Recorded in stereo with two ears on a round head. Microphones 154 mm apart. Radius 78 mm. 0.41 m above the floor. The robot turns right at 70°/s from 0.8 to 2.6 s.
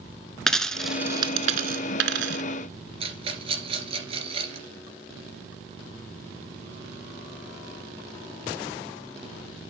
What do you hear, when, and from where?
0.5 s a dropped coin: 5° left (ahead or behind), 0.8 m; by 2.4 s 65° right (ahead or behind), 0.8 m
3.0 s a rattle: 35° right (ahead or behind), 2.5 m